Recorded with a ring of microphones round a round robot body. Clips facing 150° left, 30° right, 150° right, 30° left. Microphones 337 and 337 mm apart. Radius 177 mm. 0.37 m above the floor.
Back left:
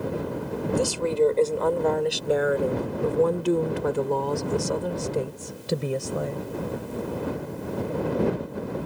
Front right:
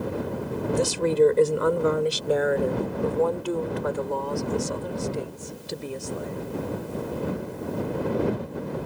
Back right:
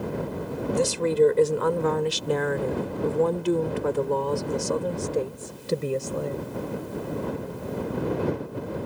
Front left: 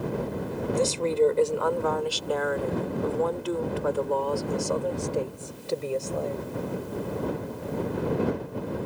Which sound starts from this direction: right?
A woman speaking, at 0.8 s.